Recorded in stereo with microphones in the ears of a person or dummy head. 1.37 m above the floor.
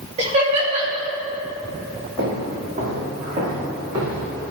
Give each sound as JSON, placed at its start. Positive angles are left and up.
{"t": 0.2, "sound": "laughter", "side_deg": -40, "distance_m": 2.0}
{"t": 2.2, "sound": "footsteps", "side_deg": -50, "distance_m": 3.0}